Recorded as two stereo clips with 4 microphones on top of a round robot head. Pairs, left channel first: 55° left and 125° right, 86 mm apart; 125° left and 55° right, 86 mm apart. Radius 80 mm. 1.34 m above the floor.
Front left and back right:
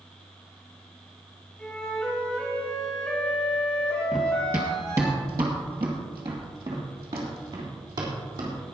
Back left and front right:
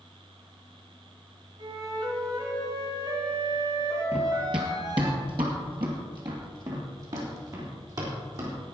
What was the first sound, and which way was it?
A flute, 25° right.